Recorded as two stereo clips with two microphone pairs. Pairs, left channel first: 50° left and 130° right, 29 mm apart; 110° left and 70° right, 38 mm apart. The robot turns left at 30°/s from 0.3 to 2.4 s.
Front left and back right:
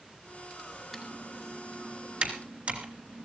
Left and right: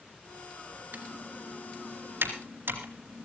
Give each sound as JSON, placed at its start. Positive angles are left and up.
{"t": 0.9, "sound": "typing on a keyboard", "azimuth_deg": -45, "distance_m": 2.5}